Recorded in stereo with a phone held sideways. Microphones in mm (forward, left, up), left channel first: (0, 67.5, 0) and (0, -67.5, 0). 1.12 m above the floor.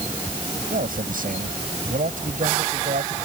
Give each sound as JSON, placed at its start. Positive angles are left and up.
{"t": 0.7, "sound": "a man speaking", "side_deg": -85}